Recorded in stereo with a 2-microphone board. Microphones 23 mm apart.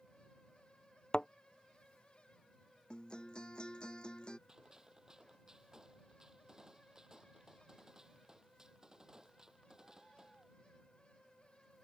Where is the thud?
40° left (ahead or behind).